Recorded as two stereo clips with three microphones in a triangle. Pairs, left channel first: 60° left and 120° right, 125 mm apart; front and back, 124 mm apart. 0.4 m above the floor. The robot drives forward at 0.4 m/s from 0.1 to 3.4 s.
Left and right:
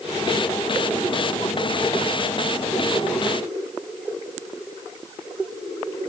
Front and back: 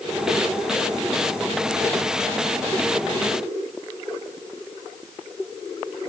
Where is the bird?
No bird in this recording.